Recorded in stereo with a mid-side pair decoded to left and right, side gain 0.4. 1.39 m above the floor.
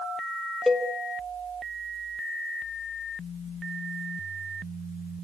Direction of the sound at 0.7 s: 10° left.